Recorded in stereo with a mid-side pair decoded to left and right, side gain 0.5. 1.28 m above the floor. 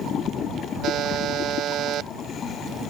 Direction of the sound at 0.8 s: 60° right.